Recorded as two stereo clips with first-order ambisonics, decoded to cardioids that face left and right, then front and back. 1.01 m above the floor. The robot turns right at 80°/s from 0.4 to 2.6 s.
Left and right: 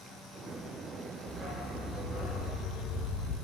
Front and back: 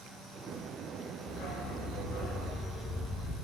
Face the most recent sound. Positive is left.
turn(degrees=70)